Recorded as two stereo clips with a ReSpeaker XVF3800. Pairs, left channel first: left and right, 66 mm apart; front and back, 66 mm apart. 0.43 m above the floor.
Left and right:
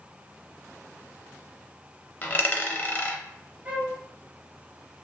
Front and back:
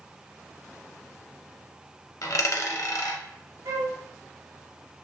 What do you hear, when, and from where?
2.2 s a dropped coin: 30° left, 0.5 m
3.6 s a flute: 155° right, 0.7 m